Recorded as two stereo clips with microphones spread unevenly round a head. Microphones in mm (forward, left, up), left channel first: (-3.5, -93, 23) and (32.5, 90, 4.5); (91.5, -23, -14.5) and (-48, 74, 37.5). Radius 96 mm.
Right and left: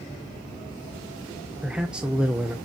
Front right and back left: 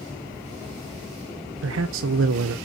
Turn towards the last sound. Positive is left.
turn(degrees=165)